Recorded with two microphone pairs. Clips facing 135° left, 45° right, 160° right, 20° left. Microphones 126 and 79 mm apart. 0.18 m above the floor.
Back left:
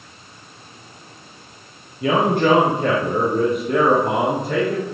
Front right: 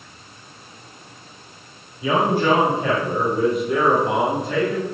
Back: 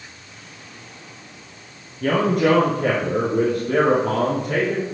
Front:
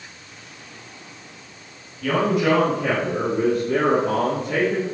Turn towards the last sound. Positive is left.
turn(degrees=170)